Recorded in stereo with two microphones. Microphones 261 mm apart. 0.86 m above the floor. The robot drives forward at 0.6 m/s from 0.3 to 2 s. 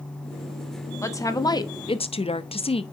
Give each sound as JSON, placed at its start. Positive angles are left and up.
{"t": 1.0, "sound": "a woman speaking", "side_deg": 10, "distance_m": 1.0}